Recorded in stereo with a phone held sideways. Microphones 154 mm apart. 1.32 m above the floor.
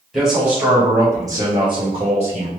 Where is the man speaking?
Centre (ahead or behind), 1.8 m; by 2.5 s 50° right (ahead or behind), 1.4 m.